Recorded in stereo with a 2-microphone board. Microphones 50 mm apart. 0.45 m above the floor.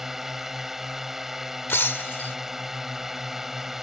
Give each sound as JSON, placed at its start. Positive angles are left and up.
{"t": 0.0, "sound": "a drone", "side_deg": -10}
{"t": 1.7, "sound": "breaking glass", "side_deg": 45}